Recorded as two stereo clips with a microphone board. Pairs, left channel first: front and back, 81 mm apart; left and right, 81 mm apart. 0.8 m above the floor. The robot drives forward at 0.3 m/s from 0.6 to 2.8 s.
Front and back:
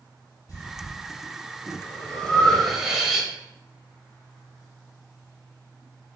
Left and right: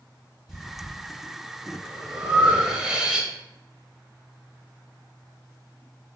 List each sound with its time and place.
0.5 s breathing: 10° right, 0.8 m; by 3.3 s 115° right, 0.5 m